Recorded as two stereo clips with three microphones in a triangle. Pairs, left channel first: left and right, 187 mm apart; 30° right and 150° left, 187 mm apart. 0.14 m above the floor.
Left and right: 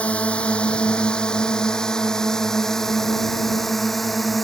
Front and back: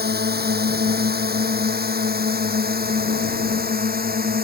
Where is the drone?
175° left; by 4.4 s straight behind.